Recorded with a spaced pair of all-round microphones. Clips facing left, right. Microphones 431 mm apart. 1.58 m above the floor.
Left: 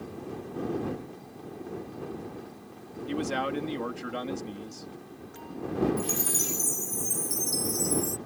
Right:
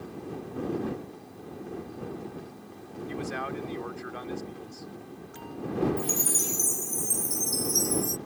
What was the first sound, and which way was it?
A man speaking, 85° left.